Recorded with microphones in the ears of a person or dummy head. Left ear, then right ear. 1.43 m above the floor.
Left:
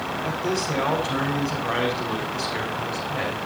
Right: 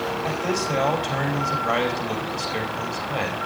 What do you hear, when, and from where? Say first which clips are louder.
0.2 s a man speaking: left 1 dB; 70° right (ahead or behind), 5.5 m